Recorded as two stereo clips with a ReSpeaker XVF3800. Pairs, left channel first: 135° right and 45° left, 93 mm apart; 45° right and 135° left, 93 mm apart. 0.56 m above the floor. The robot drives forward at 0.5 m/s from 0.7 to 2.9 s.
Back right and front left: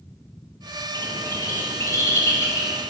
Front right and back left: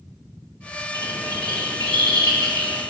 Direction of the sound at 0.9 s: 165° left.